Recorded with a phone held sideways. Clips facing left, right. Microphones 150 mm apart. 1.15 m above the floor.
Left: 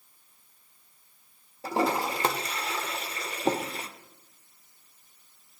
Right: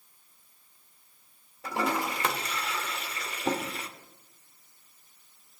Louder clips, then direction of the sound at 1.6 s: Left 3 dB; 30° left (ahead or behind).